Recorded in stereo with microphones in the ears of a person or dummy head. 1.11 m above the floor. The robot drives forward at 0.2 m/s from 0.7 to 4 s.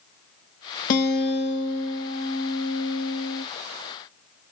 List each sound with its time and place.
0.9 s a guitar: 45° left (ahead or behind), 0.9 m; by 3.5 s 75° left (ahead or behind), 0.6 m